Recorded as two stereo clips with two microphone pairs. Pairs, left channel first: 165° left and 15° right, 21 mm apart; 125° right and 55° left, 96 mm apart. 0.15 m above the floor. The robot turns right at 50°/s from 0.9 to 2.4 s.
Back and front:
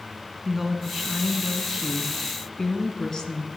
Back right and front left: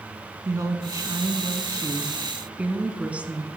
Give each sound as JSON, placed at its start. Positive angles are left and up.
{"t": 0.5, "sound": "a woman speaking", "azimuth_deg": 45, "distance_m": 1.1}